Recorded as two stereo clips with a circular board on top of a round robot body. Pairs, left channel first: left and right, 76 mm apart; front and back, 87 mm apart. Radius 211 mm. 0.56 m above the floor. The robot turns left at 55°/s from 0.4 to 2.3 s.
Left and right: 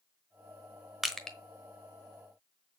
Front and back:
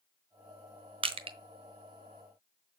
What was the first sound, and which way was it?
Crushing, 175° right.